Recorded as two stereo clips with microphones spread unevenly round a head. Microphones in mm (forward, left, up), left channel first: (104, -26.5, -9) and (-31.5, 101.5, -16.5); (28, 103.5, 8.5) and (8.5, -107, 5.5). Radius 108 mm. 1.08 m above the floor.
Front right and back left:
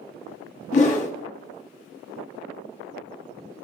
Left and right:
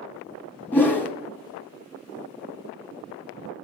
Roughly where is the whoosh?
Ahead.